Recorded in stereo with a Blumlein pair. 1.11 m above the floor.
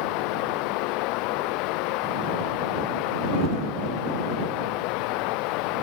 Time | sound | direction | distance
0.0 | running water | 40° left | ?